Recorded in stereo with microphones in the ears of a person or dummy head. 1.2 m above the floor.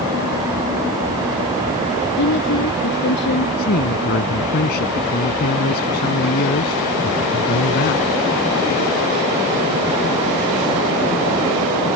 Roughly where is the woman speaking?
Left.